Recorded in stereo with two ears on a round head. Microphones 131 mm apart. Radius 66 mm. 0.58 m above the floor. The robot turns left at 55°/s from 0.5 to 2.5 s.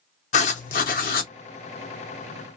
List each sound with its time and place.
0.3 s writing: 120° left, 0.7 m; by 1.3 s 75° left, 0.7 m